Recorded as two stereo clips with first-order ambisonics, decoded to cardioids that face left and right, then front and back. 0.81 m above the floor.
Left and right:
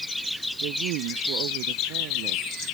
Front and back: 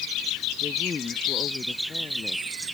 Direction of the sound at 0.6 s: 70° right.